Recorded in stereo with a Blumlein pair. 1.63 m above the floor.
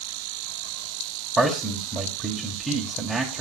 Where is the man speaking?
Straight ahead, 1.8 m.